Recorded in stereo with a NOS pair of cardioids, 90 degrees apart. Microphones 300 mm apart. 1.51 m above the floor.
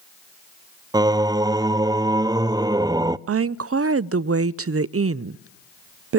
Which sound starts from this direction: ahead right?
A woman speaking, at 3.3 s.